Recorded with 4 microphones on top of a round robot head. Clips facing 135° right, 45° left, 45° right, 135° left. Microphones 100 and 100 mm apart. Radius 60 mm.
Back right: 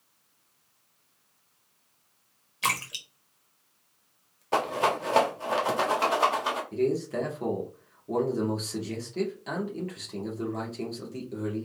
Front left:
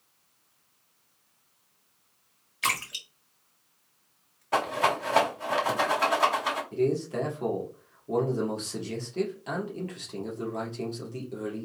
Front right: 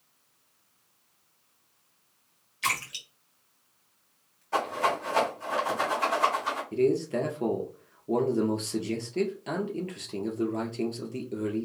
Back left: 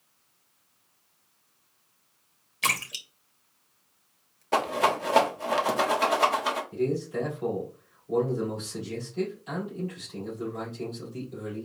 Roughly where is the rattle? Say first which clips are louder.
Even, back left 3 dB; behind.